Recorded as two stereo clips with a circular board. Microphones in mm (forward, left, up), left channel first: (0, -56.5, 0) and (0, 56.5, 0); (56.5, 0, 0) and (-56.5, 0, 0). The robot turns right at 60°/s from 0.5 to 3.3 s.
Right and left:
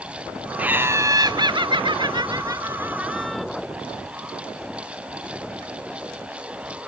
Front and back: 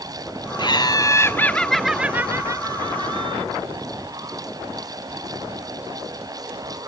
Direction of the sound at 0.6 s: 15° left.